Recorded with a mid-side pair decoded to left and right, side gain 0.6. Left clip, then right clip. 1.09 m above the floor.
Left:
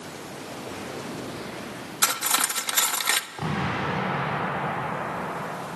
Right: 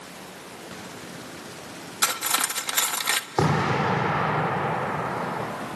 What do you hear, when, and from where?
2.0 s cutlery clinking: 10° left, 0.8 m
3.4 s an explosion: 65° right, 8 m